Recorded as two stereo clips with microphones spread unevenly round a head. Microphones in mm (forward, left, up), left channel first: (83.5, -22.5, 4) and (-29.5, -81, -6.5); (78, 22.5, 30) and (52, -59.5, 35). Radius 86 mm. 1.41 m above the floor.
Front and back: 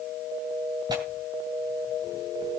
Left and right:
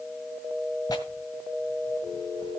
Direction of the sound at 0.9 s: 140° left.